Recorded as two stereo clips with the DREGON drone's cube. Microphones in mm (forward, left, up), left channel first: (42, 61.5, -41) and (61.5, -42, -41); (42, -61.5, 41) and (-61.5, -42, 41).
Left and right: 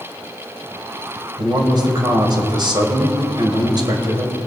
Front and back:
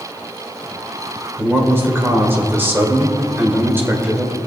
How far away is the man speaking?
About 2 m.